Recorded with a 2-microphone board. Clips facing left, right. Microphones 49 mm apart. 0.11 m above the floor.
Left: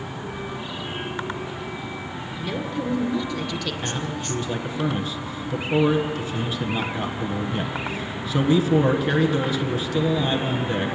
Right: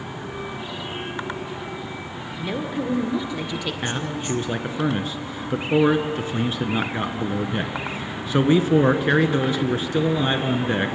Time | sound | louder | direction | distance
2.4 | a woman speaking | right 1 dB | 15° right (ahead or behind) | 1.9 m
3.8 | a man speaking | right 2 dB | 35° right (ahead or behind) | 1.4 m